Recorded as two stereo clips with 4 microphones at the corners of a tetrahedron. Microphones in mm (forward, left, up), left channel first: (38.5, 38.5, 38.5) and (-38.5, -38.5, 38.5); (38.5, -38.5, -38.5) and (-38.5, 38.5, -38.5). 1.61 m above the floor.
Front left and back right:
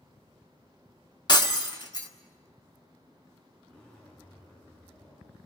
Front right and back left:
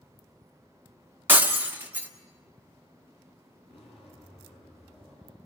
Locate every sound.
1.3 s breaking glass: 70° left, 1.4 m
3.7 s a zipper: 35° right, 6 m